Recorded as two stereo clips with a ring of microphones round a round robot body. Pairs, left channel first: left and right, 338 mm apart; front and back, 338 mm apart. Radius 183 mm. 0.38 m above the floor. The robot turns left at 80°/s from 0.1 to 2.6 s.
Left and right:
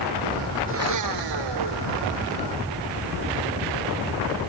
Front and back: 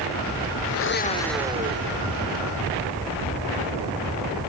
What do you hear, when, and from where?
0.7 s a blender: 35° right; by 2.2 s 165° right